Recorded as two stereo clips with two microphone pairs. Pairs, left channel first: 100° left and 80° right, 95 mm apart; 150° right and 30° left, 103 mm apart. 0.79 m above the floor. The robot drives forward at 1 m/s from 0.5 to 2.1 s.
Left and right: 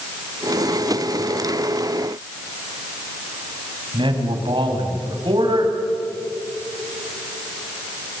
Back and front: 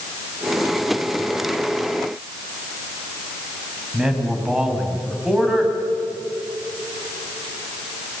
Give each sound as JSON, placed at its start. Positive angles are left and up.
{"t": 3.9, "sound": "a man speaking", "azimuth_deg": -55, "distance_m": 4.5}